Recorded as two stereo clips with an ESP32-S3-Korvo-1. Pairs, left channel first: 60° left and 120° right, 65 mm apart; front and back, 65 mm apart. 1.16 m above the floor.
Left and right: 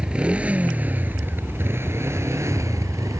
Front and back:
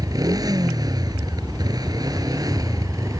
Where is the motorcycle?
165° left; by 3.2 s 155° right.